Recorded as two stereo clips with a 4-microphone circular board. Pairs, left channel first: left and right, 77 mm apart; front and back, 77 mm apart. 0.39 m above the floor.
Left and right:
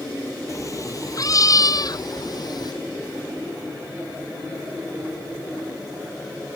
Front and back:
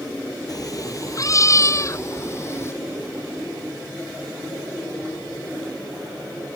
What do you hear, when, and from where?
0.5 s a cat meowing: 40° left; by 2.7 s 55° left